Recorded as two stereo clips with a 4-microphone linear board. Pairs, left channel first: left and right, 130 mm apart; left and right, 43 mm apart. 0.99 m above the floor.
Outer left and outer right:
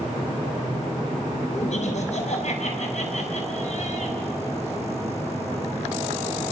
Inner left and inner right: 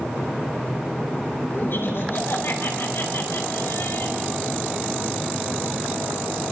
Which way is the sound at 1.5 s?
60° left (ahead or behind).